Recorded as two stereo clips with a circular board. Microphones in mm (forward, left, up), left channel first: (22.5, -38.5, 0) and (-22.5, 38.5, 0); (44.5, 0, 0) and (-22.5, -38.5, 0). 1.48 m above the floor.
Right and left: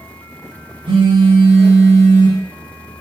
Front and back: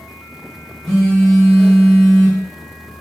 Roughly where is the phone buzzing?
Behind left.